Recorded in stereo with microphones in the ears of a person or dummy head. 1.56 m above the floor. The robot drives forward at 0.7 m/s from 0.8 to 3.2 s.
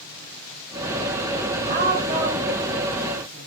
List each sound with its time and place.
1.7 s a woman speaking: 45° right (ahead or behind), 0.7 m; by 3.5 s 15° right (ahead or behind), 1.5 m